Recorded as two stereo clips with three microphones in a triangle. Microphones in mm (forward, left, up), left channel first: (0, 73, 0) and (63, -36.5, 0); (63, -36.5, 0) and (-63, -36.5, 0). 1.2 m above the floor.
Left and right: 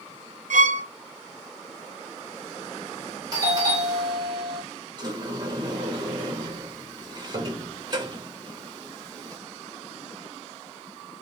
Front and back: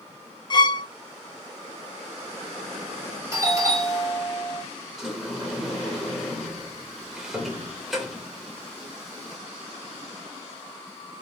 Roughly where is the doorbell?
Behind right.